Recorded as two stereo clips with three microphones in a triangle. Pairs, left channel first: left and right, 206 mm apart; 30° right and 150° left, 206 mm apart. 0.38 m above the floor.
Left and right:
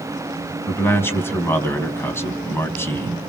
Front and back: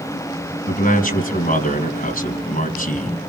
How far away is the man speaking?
About 3 m.